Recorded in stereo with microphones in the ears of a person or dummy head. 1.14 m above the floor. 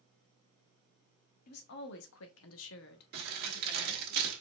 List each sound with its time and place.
1.5 s a woman speaking: 50° left (ahead or behind), 1.2 m; by 4.1 s 25° left (ahead or behind), 1.5 m
3.1 s crumpling: 55° right (ahead or behind), 1.9 m